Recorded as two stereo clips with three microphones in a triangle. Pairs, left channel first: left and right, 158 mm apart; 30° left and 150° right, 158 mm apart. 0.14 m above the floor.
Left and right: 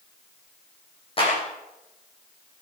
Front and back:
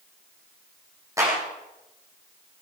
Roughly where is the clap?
Behind left.